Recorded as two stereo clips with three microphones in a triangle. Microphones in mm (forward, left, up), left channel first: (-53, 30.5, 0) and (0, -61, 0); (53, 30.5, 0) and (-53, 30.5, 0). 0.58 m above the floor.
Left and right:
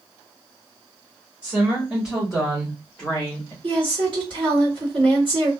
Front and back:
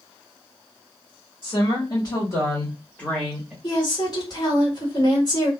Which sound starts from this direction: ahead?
A woman speaking, at 1.4 s.